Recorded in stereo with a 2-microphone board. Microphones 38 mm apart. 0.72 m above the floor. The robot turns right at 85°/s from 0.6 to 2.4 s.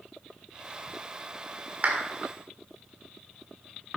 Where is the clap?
40° right (ahead or behind), 1.8 m; by 2.0 s 25° right (ahead or behind), 1.8 m.